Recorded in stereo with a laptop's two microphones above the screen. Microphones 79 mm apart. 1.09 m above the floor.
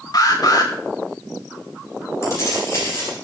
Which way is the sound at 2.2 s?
40° left (ahead or behind).